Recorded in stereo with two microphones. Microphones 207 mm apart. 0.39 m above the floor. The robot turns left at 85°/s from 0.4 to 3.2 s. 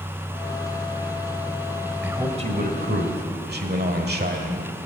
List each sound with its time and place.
2.0 s a man speaking: 10° right, 1.3 m; by 4.7 s 110° right, 1.3 m